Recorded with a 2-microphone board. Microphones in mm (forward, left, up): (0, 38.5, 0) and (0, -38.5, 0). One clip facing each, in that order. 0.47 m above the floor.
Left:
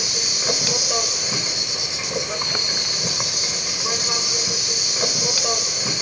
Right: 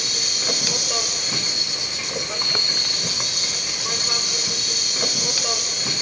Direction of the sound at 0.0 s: 5° left (ahead or behind).